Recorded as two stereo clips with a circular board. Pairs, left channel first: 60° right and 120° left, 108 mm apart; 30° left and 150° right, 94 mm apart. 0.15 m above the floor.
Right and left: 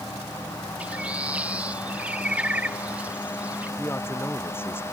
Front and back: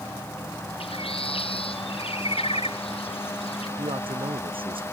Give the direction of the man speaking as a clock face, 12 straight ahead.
4 o'clock.